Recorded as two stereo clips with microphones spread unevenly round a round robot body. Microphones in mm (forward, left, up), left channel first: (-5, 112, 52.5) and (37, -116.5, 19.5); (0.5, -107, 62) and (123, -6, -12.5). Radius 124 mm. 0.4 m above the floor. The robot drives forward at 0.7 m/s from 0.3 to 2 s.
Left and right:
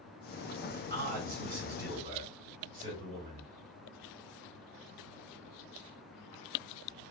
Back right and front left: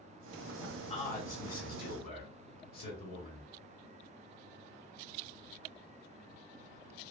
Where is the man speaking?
75° right, 2.0 m; by 3.5 s 110° right, 2 m.